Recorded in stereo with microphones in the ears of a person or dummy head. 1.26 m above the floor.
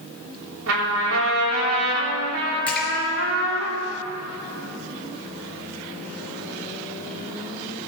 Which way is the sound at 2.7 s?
5° left (ahead or behind).